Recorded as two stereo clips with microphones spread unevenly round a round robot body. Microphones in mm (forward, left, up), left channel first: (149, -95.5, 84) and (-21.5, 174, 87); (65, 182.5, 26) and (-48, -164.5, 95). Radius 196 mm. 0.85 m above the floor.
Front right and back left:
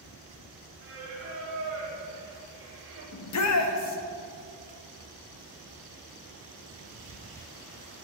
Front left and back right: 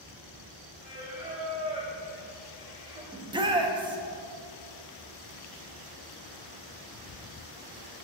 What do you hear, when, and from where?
0.8 s singing: straight behind, 1.4 m
3.1 s a shout: 25° right, 1.0 m